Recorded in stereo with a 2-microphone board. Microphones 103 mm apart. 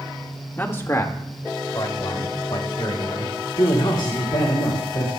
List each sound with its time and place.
0.6 s a man speaking: 20° left (ahead or behind), 1.5 m; by 3.4 s 50° left (ahead or behind), 4 m
3.6 s a man speaking: 50° left (ahead or behind), 2.5 m